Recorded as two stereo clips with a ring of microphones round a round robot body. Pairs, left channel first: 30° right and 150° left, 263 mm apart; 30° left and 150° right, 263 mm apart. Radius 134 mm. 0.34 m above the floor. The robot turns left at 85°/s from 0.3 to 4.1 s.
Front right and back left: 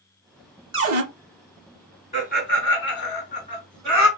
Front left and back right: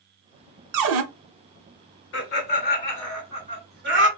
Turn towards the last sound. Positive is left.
turn(degrees=-145)